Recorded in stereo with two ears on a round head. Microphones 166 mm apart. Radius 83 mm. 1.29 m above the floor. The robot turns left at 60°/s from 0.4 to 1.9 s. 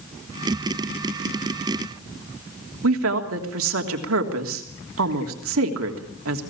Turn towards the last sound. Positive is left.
turn(degrees=-80)